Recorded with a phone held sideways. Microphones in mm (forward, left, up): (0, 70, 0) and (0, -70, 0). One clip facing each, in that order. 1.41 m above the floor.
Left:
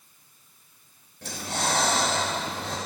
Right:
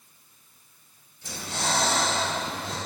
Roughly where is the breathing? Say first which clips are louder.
Left 2 dB; left.